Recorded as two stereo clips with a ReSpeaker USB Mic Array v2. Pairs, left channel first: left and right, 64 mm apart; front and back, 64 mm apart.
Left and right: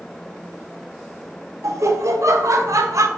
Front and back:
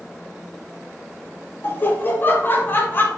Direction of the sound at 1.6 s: 60° right.